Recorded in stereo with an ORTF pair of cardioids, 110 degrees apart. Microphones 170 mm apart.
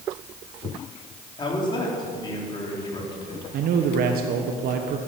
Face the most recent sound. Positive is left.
turn(degrees=-70)